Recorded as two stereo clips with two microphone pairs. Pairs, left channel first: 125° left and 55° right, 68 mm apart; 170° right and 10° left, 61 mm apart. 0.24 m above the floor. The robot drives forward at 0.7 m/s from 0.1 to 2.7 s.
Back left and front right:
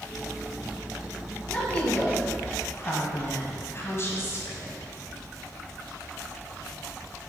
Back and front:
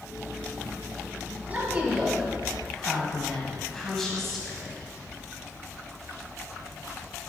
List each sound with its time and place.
1.5 s a woman speaking: 60° left, 1.5 m; by 4.8 s 110° left, 1.4 m